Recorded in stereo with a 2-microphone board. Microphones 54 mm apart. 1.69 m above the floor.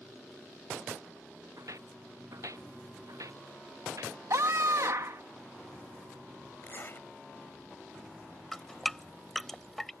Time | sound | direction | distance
1.6 | footsteps | 75° right (ahead or behind) | ?
4.3 | a scream | 80° right | ?
6.6 | a zipper | 40° left (ahead or behind) | ?
8.5 | dripping | 5° left (ahead or behind) | ?